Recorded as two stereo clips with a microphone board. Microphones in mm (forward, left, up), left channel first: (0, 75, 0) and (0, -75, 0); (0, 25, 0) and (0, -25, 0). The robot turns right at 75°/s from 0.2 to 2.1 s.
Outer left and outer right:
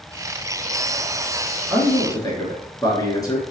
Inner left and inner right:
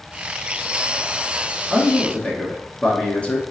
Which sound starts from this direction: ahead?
A man speaking, at 1.7 s.